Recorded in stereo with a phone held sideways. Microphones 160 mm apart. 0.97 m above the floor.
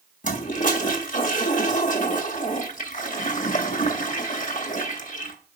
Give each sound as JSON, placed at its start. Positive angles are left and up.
{"t": 0.2, "sound": "a toilet flushing", "side_deg": 55, "distance_m": 1.7}